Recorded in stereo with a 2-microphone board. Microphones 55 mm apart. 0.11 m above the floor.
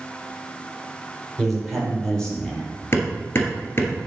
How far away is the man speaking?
About 3 m.